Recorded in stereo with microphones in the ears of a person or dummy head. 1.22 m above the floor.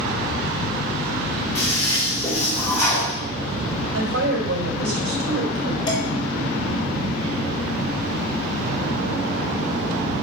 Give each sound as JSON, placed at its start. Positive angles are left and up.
{"t": 1.6, "sound": "a toilet flushing", "side_deg": 15, "distance_m": 5.5}
{"t": 3.9, "sound": "a woman speaking", "side_deg": -80, "distance_m": 3.5}
{"t": 5.9, "sound": "dishes clattering", "side_deg": 20, "distance_m": 3.0}